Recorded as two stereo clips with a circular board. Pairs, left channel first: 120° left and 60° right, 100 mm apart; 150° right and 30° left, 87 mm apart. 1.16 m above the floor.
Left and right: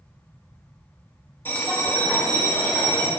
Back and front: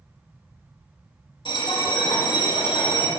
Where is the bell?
170° right, 1.4 m.